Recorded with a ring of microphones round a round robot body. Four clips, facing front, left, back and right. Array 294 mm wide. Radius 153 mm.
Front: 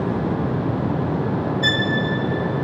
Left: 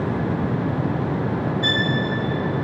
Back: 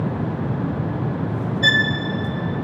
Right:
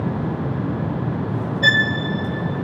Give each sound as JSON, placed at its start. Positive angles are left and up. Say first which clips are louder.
{"t": 1.6, "sound": "a violin", "louder": "right 4 dB, back 2 dB", "azimuth_deg": -95, "distance_m": 1.2}